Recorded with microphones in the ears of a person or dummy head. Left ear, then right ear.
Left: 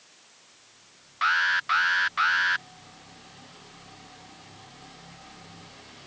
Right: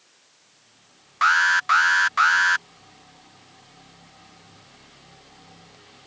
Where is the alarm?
40° right (ahead or behind).